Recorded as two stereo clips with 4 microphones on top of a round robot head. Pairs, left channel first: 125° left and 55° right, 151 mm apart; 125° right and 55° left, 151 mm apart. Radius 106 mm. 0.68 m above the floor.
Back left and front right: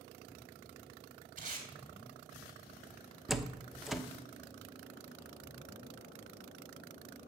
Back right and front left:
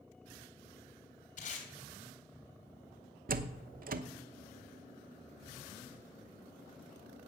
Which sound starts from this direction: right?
Tape being pulled, at 1.4 s.